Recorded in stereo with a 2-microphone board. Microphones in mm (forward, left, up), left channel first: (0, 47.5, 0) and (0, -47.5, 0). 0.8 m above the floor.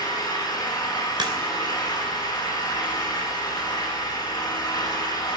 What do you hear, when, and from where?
0.0 s an engine running: 40° left (ahead or behind), 9 m
1.2 s a crack: 55° right (ahead or behind), 3 m